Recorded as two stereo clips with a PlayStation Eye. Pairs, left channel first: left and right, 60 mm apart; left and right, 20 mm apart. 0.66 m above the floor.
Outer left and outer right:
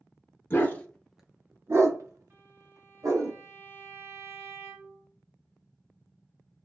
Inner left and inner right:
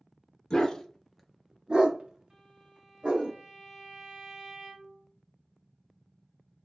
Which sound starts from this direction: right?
A violin, at 2.3 s.